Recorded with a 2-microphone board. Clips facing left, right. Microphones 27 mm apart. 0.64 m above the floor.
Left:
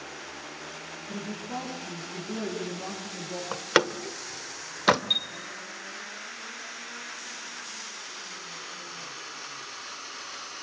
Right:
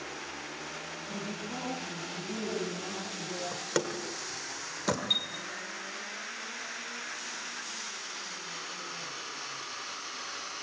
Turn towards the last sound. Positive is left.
turn(degrees=10)  # may be behind; listen again after turning